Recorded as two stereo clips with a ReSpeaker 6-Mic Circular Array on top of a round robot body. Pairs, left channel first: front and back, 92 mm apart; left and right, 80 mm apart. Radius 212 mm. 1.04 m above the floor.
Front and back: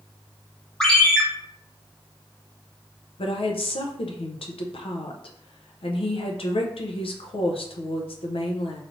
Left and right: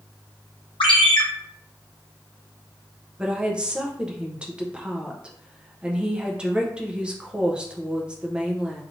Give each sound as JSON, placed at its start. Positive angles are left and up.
{"t": 0.8, "sound": "a ringtone", "azimuth_deg": 80, "distance_m": 0.9}
{"t": 3.2, "sound": "a woman speaking", "azimuth_deg": -10, "distance_m": 0.7}